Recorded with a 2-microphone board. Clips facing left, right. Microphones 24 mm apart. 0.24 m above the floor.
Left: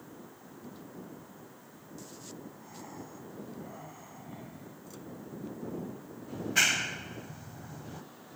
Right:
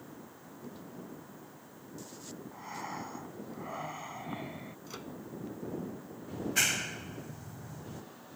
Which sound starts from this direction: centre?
A clap, at 6.3 s.